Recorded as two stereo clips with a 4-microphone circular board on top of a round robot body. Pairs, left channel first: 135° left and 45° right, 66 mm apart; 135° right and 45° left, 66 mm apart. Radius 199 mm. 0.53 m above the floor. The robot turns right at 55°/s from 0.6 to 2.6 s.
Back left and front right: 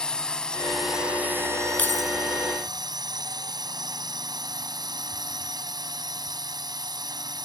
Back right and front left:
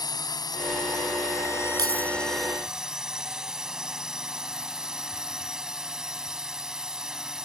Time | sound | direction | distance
0.0 | a drone | 145° right | ?
1.8 | keys jangling | 70° left | ?